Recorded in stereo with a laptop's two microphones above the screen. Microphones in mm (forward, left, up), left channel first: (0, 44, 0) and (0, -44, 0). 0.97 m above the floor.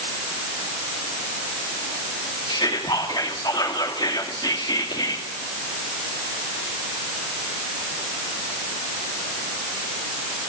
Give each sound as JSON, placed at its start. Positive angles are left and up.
{"t": 2.5, "sound": "whispering", "side_deg": 65, "distance_m": 2.0}